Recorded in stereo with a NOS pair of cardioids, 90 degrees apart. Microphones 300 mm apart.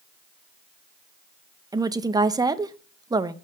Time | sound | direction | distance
1.7 | a woman speaking | 15° right | 0.5 m